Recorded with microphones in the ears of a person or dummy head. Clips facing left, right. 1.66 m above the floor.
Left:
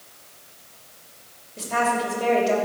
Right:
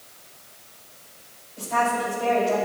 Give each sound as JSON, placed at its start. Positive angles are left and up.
{"t": 1.6, "sound": "a woman speaking", "side_deg": 50, "distance_m": 5.5}